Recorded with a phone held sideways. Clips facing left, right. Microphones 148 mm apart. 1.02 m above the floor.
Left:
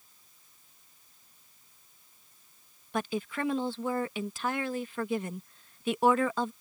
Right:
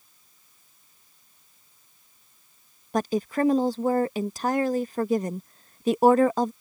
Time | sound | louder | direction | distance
2.9 | a woman speaking | right 8 dB | 40° right (ahead or behind) | ?